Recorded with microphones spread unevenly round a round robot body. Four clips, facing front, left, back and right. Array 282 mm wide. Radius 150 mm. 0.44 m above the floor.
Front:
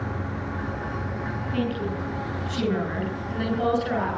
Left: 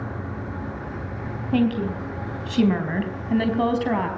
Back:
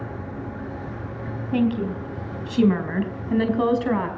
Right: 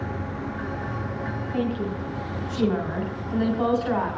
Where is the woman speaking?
125° left, 4.5 m; by 4.1 s 145° left, 5 m.